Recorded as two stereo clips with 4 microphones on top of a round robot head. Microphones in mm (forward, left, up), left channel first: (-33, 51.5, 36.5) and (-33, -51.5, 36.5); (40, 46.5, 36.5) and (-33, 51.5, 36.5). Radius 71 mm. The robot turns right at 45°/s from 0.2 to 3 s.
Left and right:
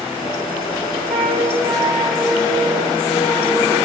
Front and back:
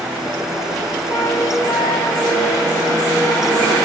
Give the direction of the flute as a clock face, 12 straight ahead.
2 o'clock.